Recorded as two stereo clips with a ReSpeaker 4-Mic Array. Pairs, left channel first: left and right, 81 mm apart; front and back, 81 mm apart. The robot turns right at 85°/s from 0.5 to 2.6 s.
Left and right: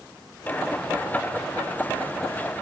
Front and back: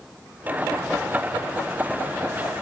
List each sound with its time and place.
Only background noise.